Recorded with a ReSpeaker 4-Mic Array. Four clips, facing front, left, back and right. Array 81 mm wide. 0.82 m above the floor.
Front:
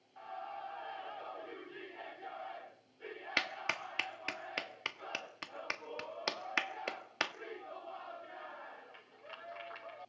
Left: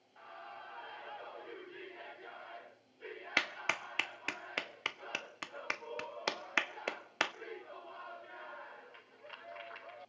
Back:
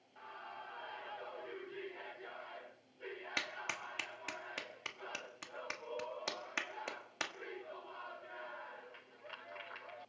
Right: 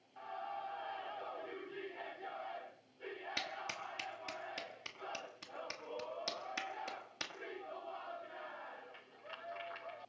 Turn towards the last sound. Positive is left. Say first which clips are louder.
# left 11 dB, front 6 dB
turn(degrees=65)